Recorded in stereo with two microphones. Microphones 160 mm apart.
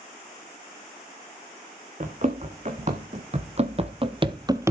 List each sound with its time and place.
2.0 s running footsteps: 50° right (ahead or behind), 2.5 m; by 4.7 s 15° right (ahead or behind), 0.7 m